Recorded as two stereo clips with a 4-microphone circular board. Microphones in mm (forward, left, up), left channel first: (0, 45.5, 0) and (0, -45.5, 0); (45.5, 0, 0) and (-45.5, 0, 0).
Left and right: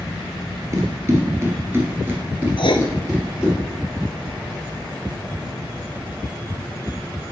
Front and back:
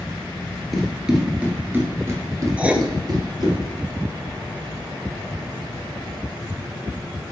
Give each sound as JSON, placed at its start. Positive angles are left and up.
{"t": 0.7, "sound": "running footsteps", "azimuth_deg": -90, "distance_m": 1.7}
{"t": 2.6, "sound": "writing", "azimuth_deg": 105, "distance_m": 0.5}